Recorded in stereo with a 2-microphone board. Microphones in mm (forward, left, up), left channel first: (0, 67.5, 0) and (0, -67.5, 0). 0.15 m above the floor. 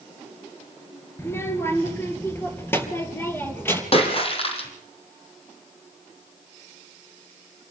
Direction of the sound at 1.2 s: 20° left (ahead or behind).